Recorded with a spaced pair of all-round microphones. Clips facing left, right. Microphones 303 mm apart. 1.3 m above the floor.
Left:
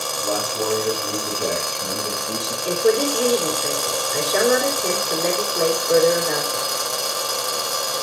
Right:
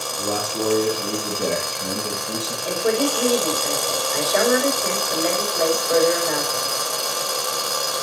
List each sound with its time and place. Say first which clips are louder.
0.2 s a man speaking: right 1 dB; 40° right (ahead or behind), 3.5 m; by 2.5 s centre (ahead or behind), 2.5 m
2.6 s a woman speaking: left 3 dB; 35° left (ahead or behind), 3 m